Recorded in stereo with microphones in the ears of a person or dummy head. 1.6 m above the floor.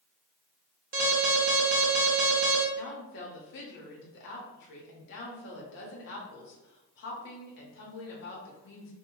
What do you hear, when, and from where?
0.9 s an alarm: 50° right (ahead or behind), 0.8 m
2.8 s a woman speaking: 65° left (ahead or behind), 0.8 m